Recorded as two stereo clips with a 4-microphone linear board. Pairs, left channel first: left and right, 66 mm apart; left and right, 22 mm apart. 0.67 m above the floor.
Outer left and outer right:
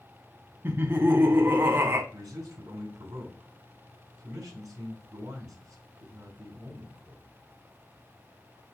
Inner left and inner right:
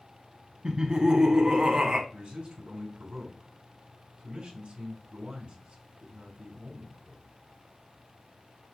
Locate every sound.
0.6 s laughter: 35° right (ahead or behind), 0.9 m
2.1 s a man speaking: 55° right (ahead or behind), 2.5 m